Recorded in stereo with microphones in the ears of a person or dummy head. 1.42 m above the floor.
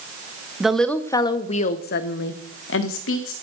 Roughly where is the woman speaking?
Centre.